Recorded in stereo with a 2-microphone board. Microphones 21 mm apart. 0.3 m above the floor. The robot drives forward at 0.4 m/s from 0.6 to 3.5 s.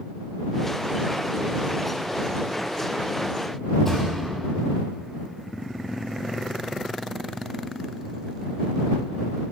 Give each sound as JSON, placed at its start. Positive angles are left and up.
{"t": 3.9, "sound": "a thud", "side_deg": 10, "distance_m": 4.5}